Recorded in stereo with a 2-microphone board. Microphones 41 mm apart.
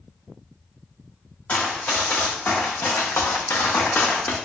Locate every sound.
1.5 s running footsteps: 40° left (ahead or behind), 1.5 m; by 4.4 s 35° left (ahead or behind), 0.9 m